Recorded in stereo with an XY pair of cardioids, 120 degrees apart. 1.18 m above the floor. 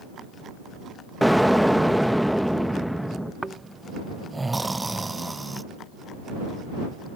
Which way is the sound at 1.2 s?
Straight ahead.